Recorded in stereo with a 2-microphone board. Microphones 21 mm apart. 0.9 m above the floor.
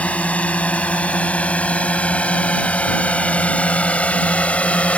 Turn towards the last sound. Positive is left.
turn(degrees=75)  # may be behind; listen again after turning